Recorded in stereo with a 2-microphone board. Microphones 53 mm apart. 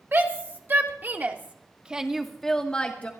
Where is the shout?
45° right (ahead or behind), 1.9 m; by 3.1 s 30° left (ahead or behind), 1.1 m.